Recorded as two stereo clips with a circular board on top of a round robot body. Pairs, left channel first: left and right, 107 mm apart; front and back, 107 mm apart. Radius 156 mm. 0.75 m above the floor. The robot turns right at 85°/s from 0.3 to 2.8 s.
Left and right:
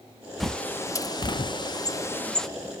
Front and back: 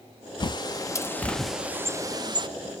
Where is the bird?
Straight ahead, 0.9 m; by 2.5 s 175° left, 0.9 m.